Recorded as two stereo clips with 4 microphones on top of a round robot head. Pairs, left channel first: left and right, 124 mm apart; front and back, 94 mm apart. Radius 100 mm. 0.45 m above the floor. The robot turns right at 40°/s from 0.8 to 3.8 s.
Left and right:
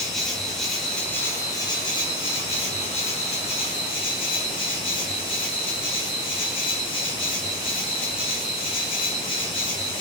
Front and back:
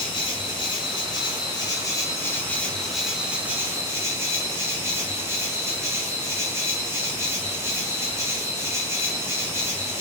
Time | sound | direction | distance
0.0 | an insect | 5° left | 1.3 m